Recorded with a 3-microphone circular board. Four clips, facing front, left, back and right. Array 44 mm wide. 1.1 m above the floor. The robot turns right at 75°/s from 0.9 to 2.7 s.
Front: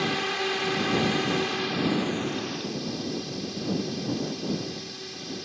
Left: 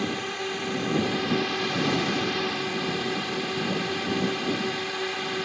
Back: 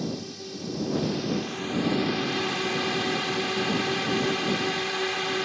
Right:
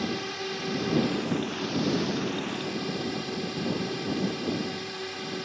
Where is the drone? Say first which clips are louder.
Left 2 dB, front 7 dB; 15° left; by 5.5 s 150° left.